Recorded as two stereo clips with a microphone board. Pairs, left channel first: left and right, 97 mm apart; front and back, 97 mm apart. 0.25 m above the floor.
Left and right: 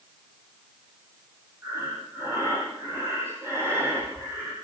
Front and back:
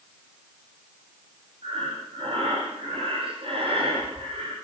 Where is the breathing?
155° right, 9 m.